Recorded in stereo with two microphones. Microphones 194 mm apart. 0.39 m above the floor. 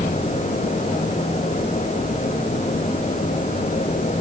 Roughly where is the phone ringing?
No phone ringing in this recording.